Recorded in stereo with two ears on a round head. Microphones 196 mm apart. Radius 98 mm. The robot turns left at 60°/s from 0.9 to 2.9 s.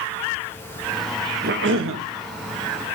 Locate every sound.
1.4 s a cough: 50° right, 1.1 m; by 2.0 s 85° right, 1.1 m